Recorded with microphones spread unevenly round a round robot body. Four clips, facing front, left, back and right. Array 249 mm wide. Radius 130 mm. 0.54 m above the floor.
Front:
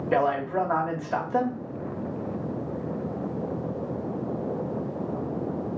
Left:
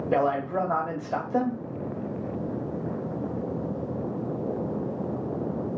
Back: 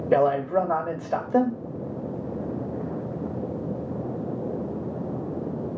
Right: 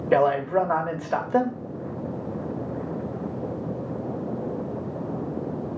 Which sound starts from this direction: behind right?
A man speaking, at 0.1 s.